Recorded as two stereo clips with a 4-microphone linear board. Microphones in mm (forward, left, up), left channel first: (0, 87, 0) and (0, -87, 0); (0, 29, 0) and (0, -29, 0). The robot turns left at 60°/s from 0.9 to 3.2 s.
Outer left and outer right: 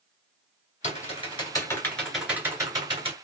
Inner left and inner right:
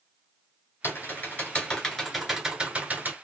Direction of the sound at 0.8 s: 35° left (ahead or behind).